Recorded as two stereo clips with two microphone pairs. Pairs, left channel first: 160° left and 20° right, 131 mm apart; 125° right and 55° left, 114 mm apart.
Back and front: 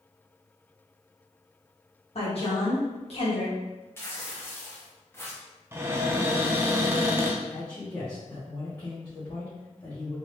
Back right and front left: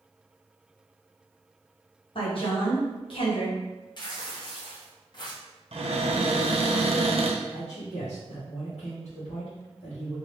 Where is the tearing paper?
140° right, 0.8 m.